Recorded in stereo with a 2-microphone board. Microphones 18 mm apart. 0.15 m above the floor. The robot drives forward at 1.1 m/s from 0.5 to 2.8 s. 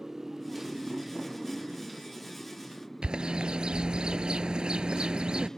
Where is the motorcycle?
15° right (ahead or behind); by 5.6 s 35° left (ahead or behind).